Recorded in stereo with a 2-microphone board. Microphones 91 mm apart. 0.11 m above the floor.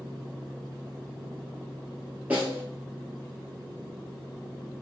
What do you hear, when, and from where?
2.3 s a snare drum: 20° right (ahead or behind), 1.2 m